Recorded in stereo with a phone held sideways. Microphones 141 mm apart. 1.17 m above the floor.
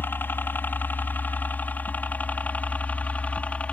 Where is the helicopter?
15° left (ahead or behind); by 3.7 s 10° left (ahead or behind).